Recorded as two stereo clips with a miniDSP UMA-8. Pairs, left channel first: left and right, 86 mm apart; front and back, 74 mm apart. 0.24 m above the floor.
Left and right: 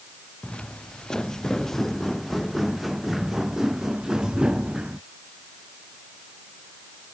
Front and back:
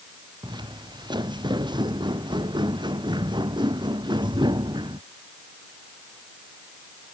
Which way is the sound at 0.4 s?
165° left.